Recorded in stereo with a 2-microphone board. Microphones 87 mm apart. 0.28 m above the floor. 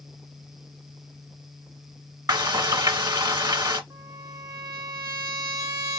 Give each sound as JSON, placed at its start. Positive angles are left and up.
{"t": 2.3, "sound": "frying", "side_deg": -55, "distance_m": 1.1}
{"t": 3.9, "sound": "a trumpet", "side_deg": -35, "distance_m": 1.0}